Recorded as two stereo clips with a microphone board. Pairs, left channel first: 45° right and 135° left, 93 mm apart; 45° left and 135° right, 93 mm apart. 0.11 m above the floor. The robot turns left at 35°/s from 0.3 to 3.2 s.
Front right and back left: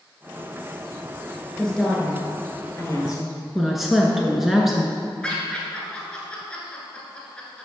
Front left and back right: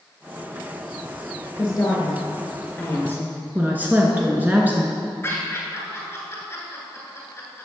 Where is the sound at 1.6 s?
35° left, 1.3 m; by 3.4 s 20° right, 1.3 m.